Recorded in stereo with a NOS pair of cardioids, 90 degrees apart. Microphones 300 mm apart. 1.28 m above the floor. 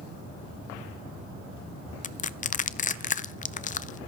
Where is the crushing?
30° left, 0.5 m.